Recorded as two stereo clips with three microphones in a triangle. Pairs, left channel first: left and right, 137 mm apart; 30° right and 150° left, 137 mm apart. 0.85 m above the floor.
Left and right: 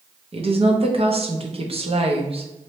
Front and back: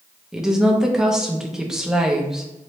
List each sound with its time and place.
0.3 s a woman speaking: 125° right, 0.6 m